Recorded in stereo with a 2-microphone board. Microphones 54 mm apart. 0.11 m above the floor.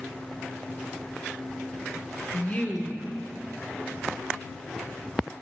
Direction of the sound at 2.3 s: 25° left (ahead or behind).